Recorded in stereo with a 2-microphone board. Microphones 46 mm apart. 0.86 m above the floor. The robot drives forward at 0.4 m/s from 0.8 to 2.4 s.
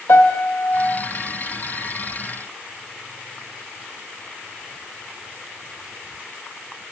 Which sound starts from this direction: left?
A piano, at 0.1 s.